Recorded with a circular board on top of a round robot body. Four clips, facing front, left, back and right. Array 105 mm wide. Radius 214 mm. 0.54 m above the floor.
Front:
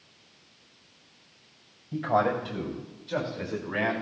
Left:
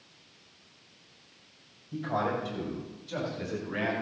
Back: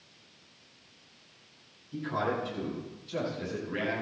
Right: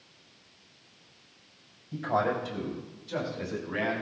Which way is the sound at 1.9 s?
10° right.